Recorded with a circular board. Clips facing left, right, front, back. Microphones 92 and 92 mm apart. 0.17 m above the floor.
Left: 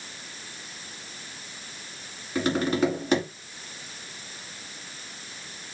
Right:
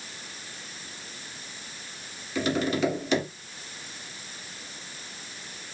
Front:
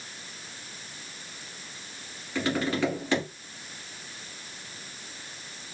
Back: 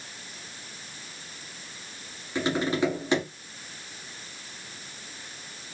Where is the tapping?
115° left, 1.3 m.